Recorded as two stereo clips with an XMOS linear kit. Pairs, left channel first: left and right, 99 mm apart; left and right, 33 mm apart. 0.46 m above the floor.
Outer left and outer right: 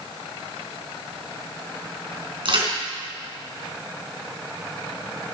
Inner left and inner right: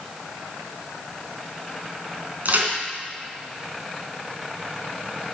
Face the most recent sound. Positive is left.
turn(degrees=-60)  # may be behind; listen again after turning